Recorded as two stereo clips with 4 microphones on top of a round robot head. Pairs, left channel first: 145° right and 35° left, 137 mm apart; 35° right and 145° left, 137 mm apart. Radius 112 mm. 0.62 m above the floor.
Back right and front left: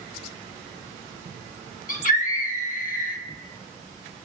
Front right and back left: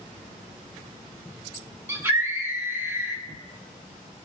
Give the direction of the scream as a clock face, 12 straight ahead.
5 o'clock.